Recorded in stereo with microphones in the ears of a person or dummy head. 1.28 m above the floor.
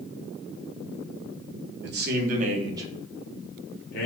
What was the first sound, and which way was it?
A man speaking, 60° right (ahead or behind).